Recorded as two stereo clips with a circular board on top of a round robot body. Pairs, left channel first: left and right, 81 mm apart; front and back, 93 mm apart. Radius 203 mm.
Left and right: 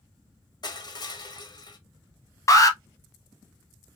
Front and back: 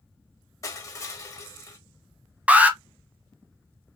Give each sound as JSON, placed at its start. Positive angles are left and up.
{"t": 0.6, "sound": "crushing", "azimuth_deg": 55, "distance_m": 1.4}
{"t": 2.5, "sound": "an alarm", "azimuth_deg": 110, "distance_m": 1.4}